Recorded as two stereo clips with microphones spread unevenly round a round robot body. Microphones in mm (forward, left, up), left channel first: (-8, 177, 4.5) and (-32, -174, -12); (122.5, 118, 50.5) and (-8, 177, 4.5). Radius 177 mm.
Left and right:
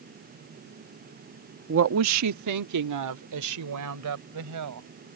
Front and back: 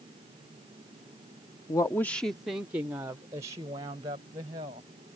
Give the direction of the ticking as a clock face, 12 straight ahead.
I don't hear ticking.